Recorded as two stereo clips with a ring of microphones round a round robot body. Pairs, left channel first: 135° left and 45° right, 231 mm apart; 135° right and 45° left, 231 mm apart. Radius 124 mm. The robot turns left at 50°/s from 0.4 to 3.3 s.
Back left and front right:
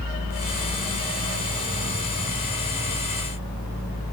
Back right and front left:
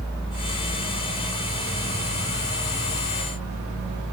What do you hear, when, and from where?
Only background noise.